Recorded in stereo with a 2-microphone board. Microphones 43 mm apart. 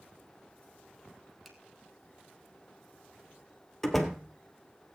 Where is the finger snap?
Centre (ahead or behind), 2.5 m.